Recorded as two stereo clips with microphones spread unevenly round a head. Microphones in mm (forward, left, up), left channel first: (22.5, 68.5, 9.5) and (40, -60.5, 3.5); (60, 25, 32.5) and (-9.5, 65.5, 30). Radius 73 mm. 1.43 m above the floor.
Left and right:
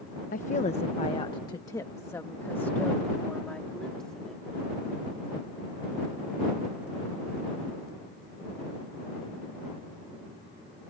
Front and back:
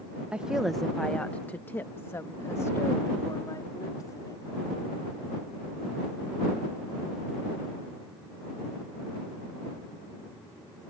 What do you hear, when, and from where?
0.3 s a woman speaking: 75° left; by 4.5 s 10° left